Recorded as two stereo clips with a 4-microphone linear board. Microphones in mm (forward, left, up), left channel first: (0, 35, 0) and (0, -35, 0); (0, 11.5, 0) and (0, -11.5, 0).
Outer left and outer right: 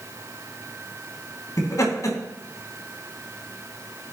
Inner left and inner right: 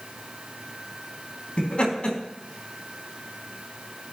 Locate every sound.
1.6 s laughter: 55° left (ahead or behind), 3.5 m